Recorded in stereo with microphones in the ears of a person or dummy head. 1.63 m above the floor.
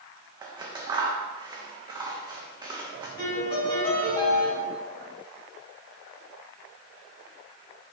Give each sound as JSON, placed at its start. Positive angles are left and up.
{"t": 0.4, "sound": "scissors", "side_deg": -20, "distance_m": 0.5}
{"t": 3.2, "sound": "a piano", "side_deg": 25, "distance_m": 1.4}